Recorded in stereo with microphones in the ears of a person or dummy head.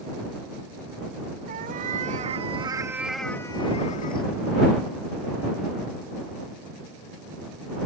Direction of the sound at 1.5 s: 50° right (ahead or behind).